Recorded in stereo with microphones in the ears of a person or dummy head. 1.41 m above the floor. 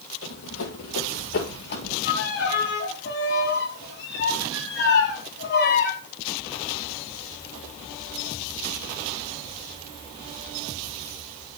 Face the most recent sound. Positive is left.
turn(degrees=65)  # may be behind; listen again after turning